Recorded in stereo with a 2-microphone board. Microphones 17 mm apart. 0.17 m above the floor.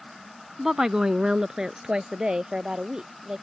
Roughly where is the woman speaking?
Right.